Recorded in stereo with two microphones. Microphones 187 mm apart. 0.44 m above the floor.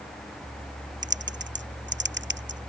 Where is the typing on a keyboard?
75° right (ahead or behind).